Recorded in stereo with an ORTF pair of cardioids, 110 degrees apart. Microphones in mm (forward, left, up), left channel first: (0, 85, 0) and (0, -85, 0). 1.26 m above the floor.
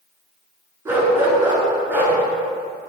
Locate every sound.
0.8 s a dog barking: 15° right, 6 m; by 2.2 s 10° right, 6.5 m